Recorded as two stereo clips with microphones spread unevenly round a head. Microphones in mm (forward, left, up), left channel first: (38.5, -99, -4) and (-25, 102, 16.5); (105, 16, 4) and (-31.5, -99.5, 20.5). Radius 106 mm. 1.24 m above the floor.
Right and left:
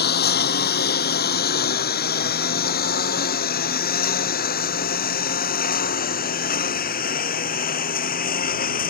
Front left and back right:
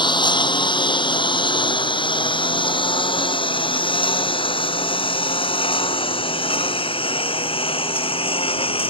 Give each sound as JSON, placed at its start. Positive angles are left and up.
{"t": 0.0, "sound": "a lawn mower", "azimuth_deg": -25}